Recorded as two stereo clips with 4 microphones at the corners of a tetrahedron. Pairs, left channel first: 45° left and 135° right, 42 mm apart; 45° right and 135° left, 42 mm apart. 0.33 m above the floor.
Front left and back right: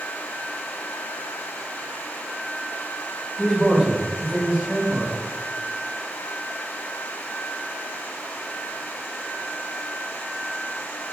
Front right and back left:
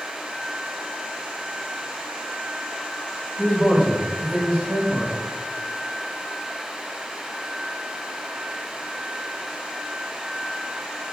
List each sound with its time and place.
3.4 s a man speaking: 105° left, 0.9 m; by 5.1 s straight behind, 1.3 m